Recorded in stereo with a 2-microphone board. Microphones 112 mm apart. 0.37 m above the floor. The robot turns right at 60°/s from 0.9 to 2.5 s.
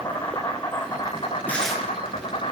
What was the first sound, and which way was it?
An insect, 35° left.